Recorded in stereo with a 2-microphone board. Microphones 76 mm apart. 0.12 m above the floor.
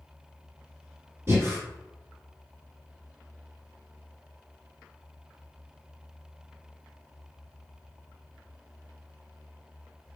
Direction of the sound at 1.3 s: 30° right (ahead or behind).